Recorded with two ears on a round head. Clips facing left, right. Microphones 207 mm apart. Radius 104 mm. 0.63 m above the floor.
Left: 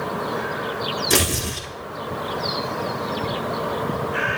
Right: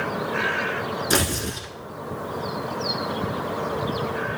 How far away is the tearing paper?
About 1.2 m.